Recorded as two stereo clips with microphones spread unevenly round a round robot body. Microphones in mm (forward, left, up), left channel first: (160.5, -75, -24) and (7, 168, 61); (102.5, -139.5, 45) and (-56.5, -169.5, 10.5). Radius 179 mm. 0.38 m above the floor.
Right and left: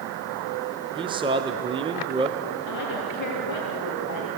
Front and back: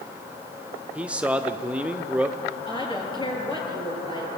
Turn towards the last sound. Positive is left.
turn(degrees=-50)